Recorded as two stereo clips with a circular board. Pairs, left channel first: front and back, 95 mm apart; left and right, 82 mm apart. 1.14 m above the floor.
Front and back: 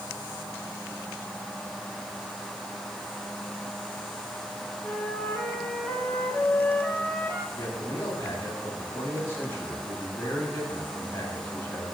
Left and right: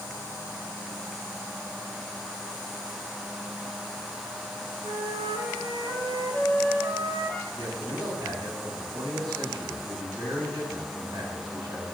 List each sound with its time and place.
4.8 s a flute: 70° right, 3 m
7.5 s a man speaking: 60° right, 8.5 m